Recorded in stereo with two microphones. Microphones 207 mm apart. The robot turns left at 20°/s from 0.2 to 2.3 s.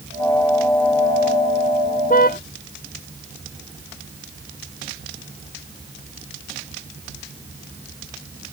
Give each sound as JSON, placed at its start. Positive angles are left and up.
{"t": 2.1, "sound": "a car horn", "side_deg": 40}